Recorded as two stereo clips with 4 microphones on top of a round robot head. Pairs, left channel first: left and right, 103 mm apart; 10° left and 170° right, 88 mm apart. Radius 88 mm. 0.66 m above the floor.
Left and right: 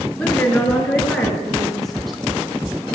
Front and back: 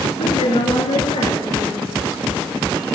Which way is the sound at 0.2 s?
10° left.